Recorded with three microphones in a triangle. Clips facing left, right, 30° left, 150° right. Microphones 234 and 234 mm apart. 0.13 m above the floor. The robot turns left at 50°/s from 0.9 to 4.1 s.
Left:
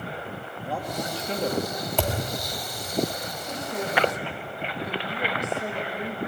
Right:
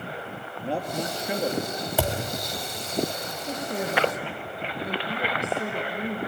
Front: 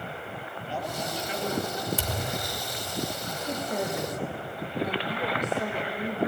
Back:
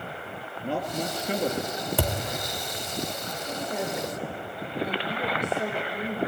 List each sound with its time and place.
0.6 s a man speaking: 145° right, 2.5 m; by 1.8 s 170° left, 2.5 m
2.0 s a thud: 170° right, 2 m; by 2.2 s straight behind, 2 m
3.4 s a woman speaking: 35° right, 5 m; by 6.2 s 70° right, 5 m